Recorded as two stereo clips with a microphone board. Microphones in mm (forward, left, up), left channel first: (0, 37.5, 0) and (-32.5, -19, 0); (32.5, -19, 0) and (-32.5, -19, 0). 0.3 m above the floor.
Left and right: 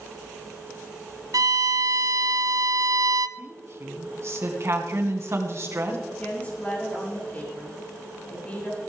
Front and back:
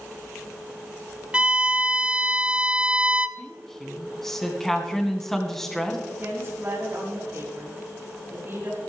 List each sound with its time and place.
1.3 s a violin: 110° right, 0.6 m
3.4 s a woman speaking: 85° right, 3 m
6.1 s a woman speaking: 125° left, 7 m